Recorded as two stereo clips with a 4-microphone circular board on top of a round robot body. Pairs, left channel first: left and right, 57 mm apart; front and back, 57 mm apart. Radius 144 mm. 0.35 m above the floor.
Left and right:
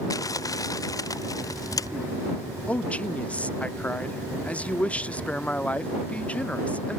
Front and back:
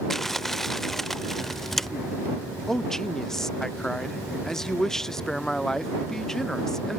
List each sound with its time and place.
0.1 s crumpling: 85° left
2.7 s a man speaking: 70° left